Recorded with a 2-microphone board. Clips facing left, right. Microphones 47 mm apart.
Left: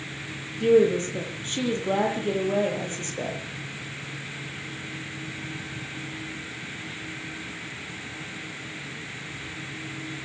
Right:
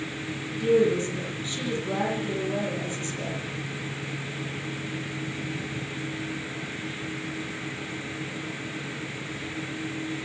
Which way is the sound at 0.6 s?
55° left (ahead or behind).